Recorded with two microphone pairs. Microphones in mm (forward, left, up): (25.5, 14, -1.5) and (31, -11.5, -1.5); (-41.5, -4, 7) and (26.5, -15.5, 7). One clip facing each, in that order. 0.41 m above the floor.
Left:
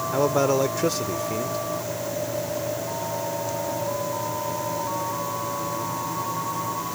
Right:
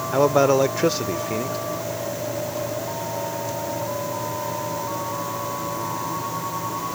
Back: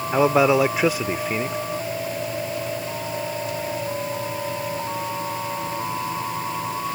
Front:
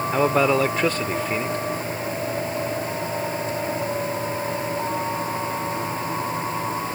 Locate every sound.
0.1 s a man speaking: 120° right